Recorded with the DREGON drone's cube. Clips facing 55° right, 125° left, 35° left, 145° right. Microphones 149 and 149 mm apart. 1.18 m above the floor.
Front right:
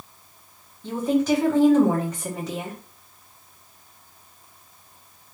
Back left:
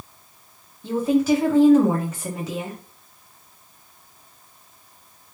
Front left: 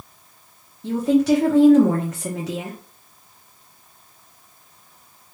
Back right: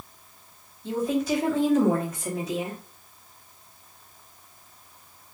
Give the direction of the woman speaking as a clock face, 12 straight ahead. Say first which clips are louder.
Back left 2 dB, front left 8 dB; 11 o'clock.